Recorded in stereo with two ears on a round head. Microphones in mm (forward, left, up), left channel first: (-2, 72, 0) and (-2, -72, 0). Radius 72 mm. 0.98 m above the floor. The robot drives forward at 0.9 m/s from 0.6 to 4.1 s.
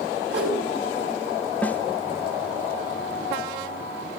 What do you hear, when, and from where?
0.3 s a whoosh: 80° right, 6 m
1.6 s a snare drum: 10° left (ahead or behind), 0.8 m